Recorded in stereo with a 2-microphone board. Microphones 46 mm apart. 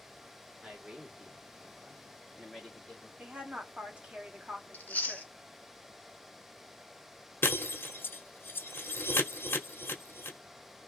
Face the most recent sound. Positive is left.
turn(degrees=55)  # may be behind; listen again after turning